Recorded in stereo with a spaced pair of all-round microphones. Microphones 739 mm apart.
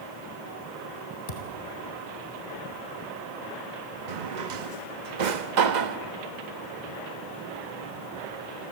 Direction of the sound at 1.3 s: 55° left (ahead or behind).